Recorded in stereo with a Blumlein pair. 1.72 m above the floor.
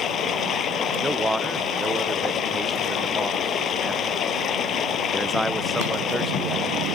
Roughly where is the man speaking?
Ahead.